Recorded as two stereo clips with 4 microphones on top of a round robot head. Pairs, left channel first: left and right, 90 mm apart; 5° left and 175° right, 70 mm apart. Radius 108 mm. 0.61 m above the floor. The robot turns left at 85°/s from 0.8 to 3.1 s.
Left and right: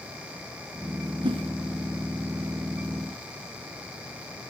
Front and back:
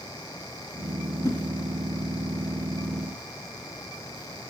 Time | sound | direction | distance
1.2 | a whoosh | 50° right | 1.8 m